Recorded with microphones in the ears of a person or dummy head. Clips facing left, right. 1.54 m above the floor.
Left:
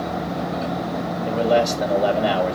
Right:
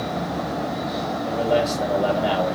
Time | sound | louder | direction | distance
1.2 | a man speaking | left 3 dB | 20° left (ahead or behind) | 2.5 m